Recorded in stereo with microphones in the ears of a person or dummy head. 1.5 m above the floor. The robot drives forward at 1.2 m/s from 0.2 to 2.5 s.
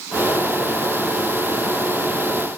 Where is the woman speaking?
I don't hear a woman speaking.